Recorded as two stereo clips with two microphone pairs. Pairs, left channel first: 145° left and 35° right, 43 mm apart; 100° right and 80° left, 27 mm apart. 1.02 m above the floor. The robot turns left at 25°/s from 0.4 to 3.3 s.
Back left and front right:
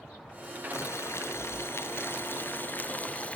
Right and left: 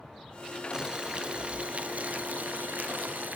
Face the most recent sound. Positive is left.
turn(degrees=85)